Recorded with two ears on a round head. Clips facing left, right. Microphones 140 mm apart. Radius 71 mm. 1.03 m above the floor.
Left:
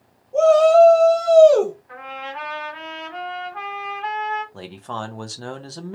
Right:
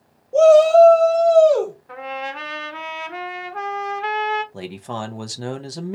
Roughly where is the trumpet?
Right.